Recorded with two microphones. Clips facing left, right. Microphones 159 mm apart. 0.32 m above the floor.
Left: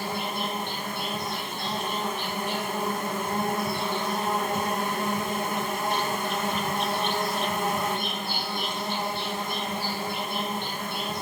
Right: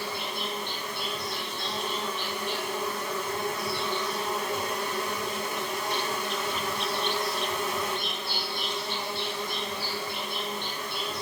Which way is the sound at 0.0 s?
50° left (ahead or behind).